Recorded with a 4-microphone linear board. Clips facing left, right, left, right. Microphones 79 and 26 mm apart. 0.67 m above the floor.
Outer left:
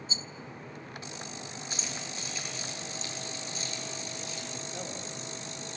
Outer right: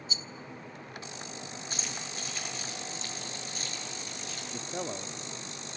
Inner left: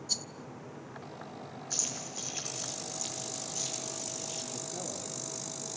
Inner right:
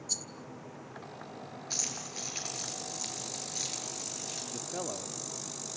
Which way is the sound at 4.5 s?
50° right (ahead or behind).